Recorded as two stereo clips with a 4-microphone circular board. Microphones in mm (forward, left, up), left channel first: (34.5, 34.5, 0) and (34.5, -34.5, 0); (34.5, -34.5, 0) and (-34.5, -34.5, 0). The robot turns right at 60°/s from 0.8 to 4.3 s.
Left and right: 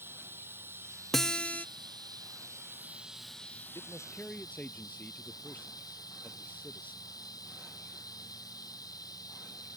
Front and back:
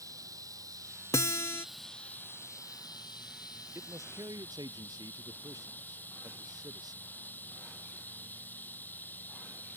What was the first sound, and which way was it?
Running water, 145° right.